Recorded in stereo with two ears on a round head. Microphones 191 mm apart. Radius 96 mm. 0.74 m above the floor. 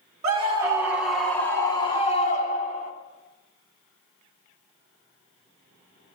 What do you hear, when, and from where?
0.2 s a scream: 30° right (ahead or behind), 1.2 m; by 2.9 s 40° left (ahead or behind), 1.9 m